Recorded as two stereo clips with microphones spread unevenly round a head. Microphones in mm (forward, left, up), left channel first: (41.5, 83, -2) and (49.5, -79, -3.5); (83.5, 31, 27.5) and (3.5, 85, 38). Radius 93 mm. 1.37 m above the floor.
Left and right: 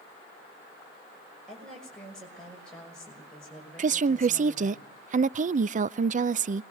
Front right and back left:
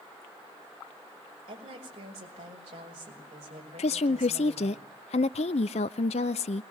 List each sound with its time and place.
1.5 s a woman speaking: straight behind, 5.5 m
3.8 s a woman speaking: 50° right, 0.5 m